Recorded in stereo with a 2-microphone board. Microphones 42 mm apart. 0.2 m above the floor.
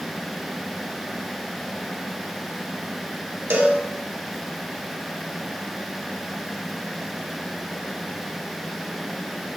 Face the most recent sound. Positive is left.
turn(degrees=-70)  # may be behind; listen again after turning